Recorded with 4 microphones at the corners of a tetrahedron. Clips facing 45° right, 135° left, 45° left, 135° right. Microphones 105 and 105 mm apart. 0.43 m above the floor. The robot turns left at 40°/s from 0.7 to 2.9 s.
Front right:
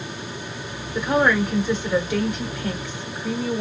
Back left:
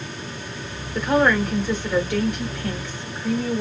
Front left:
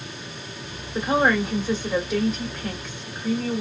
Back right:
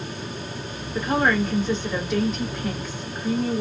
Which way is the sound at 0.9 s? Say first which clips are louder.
Back left 1 dB, front left 1 dB; 15° left.